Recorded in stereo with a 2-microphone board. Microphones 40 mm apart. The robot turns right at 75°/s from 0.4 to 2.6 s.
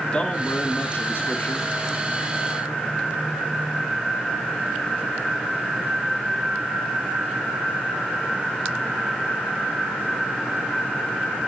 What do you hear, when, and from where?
0.1 s a man speaking: 30° left, 1.8 m; by 1.7 s 125° left, 1.8 m